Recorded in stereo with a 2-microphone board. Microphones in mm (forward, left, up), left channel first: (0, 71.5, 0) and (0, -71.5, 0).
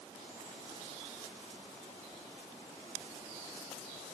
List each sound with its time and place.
Only background noise.